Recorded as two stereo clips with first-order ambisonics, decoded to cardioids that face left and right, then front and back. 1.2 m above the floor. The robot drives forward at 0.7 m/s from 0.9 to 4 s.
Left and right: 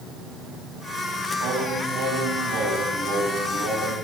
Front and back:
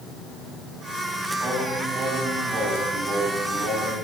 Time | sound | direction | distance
1.4 | singing | 115° right | 5 m